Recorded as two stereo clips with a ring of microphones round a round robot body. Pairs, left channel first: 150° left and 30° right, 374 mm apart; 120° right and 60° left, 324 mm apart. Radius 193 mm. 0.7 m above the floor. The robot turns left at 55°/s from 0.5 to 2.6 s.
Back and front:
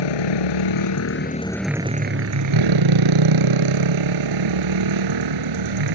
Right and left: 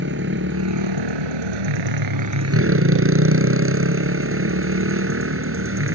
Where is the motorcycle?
125° left; by 6.0 s 10° left.